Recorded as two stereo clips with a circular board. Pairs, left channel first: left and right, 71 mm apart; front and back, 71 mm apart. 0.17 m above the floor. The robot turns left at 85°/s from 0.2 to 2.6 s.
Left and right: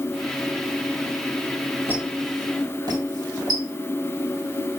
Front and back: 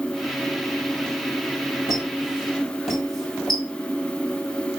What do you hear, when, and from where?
1.9 s a squeak: 25° right, 1.9 m; by 3.6 s 90° right, 1.9 m